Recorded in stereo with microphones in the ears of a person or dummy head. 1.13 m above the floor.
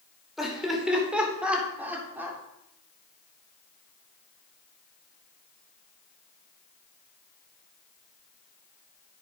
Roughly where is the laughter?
Centre.